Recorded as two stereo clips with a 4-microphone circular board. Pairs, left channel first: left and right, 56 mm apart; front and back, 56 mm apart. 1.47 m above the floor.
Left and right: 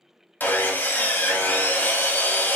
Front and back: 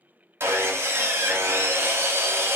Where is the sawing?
145° left, 0.7 m.